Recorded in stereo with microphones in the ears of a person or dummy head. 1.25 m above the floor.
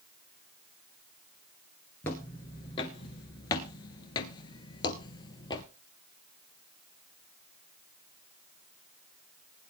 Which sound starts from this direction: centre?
Footsteps, at 2.0 s.